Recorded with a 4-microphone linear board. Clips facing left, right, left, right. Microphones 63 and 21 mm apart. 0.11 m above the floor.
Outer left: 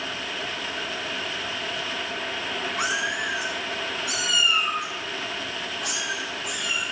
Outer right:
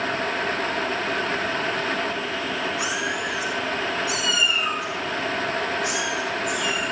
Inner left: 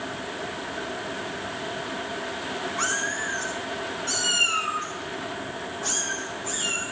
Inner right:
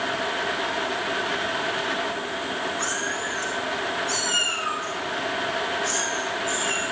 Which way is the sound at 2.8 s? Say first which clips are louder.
Even, even; 50° left (ahead or behind).